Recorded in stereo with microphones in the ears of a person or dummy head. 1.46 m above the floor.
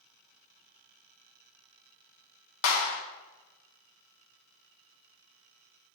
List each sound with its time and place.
2.6 s a clap: 75° left (ahead or behind), 1.3 m